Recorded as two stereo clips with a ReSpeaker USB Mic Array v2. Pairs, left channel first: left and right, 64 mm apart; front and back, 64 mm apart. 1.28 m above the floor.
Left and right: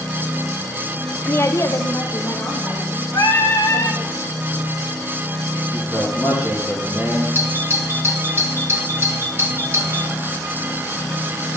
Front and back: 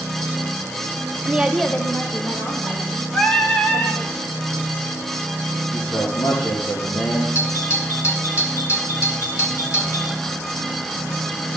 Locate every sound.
1.2 s a woman speaking: 140° left, 0.6 m; by 4.1 s 35° left, 4 m
3.1 s singing: 75° left, 1.5 m
5.7 s a man speaking: 10° left, 2.5 m
7.3 s a doorbell: 40° right, 2.5 m